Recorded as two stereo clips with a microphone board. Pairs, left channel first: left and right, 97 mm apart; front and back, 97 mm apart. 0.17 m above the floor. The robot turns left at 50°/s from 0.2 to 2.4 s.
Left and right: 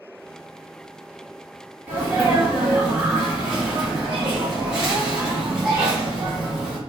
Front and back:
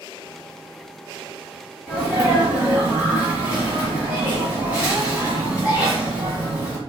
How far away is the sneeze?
About 1.0 m.